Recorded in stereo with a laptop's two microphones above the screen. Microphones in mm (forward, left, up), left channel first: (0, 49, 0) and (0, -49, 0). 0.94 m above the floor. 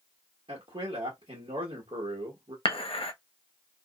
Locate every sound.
0.5 s a man speaking: 75° right (ahead or behind), 1.1 m
2.6 s dishes clattering: 75° left (ahead or behind), 0.6 m